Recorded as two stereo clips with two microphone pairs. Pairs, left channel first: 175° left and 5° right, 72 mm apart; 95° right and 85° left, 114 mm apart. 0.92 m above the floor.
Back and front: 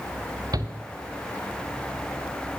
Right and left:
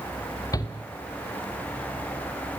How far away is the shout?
About 3 m.